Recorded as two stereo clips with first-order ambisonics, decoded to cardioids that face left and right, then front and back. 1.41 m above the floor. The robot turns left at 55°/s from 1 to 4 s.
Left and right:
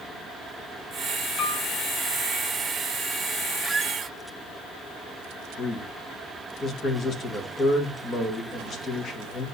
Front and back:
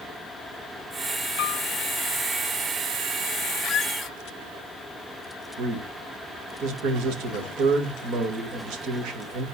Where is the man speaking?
150° left, 1.7 m.